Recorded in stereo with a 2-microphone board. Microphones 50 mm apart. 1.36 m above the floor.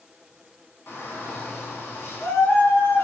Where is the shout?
45° left (ahead or behind), 1.0 m.